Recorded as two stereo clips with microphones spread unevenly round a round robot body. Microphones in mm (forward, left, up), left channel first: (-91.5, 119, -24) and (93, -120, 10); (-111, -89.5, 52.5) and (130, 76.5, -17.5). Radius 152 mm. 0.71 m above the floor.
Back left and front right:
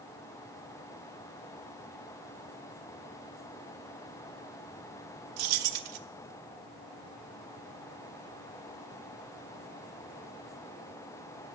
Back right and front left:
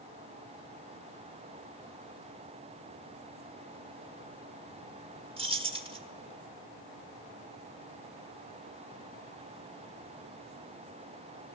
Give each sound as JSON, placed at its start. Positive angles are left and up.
{"t": 5.4, "sound": "keys jangling", "azimuth_deg": -35, "distance_m": 1.2}